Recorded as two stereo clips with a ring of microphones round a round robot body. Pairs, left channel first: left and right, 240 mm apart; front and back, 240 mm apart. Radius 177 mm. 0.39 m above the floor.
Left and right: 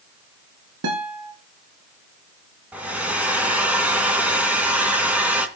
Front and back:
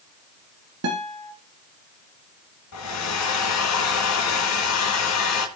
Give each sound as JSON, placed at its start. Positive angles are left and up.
{"t": 0.8, "sound": "a guitar", "azimuth_deg": -135, "distance_m": 2.0}
{"t": 2.7, "sound": "a hair dryer", "azimuth_deg": -5, "distance_m": 2.5}